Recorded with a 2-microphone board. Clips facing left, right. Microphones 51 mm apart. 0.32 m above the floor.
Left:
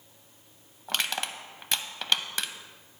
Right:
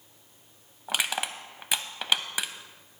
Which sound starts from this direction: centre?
Crushing, at 0.9 s.